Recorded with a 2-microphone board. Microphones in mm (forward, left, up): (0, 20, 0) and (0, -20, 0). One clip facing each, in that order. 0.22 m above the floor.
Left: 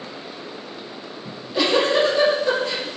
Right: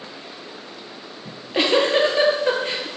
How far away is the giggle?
About 3 m.